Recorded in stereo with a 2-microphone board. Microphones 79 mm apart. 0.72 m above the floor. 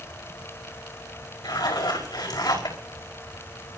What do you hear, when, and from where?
1.4 s a zipper: 70° left (ahead or behind), 4.5 m